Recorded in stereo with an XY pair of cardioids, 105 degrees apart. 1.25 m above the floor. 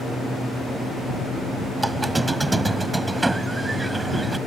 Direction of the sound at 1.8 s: 15° right.